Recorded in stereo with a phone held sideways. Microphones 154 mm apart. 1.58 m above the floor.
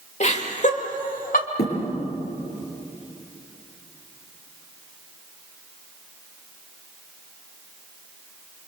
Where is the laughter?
50° left (ahead or behind), 3 m; by 1.5 s 65° left (ahead or behind), 3 m.